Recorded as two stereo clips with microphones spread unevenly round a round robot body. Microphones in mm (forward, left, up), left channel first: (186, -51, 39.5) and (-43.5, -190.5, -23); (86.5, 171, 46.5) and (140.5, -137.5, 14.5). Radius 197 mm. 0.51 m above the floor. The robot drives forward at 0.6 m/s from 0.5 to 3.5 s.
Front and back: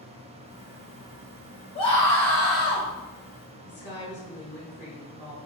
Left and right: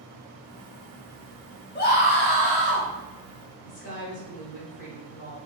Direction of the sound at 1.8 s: 95° left.